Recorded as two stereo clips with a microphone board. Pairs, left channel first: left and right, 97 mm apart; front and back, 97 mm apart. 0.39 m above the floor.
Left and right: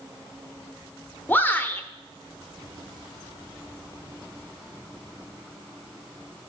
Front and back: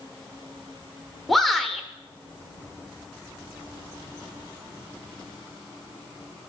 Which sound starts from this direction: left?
A shout, at 1.3 s.